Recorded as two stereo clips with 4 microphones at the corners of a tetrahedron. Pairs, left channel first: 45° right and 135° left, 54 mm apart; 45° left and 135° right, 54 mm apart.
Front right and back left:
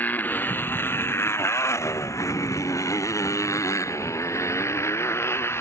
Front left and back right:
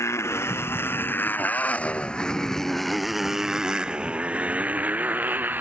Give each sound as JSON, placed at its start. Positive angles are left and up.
{"t": 0.0, "sound": "a motorcycle", "azimuth_deg": 10}